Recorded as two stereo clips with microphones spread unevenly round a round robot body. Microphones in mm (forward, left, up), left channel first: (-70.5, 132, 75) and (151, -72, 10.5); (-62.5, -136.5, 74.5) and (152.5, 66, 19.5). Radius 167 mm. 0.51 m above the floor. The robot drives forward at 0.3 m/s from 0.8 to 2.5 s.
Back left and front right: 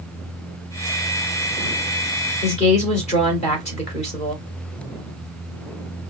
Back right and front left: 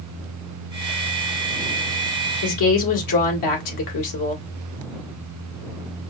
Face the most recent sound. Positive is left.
turn(degrees=-150)